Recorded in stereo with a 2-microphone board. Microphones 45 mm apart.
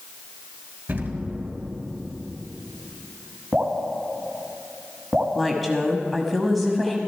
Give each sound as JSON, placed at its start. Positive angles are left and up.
{"t": 0.9, "sound": "an explosion", "side_deg": -50, "distance_m": 2.5}
{"t": 3.5, "sound": "dripping", "side_deg": -20, "distance_m": 1.5}
{"t": 5.3, "sound": "a woman speaking", "side_deg": 0, "distance_m": 1.0}